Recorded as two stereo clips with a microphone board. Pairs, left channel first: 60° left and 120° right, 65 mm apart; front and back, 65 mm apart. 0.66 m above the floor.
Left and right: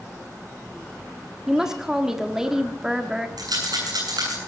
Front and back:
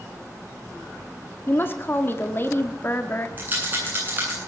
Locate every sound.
1.5 s a woman speaking: 40° right, 1.4 m
3.4 s a rattle: 120° right, 9 m